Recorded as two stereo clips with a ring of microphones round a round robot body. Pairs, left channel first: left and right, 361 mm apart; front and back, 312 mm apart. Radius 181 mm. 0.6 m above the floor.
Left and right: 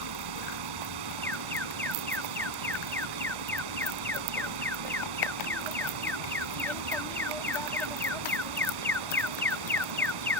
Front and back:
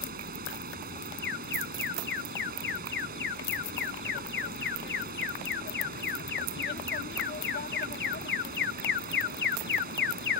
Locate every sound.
0.0 s running water: 115° right
1.2 s an alarm: 10° left